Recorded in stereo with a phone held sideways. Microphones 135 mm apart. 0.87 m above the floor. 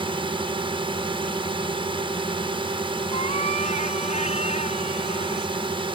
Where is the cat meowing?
55° left (ahead or behind).